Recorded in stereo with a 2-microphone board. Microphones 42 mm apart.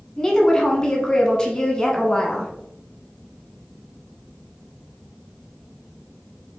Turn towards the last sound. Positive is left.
turn(degrees=20)  # may be behind; listen again after turning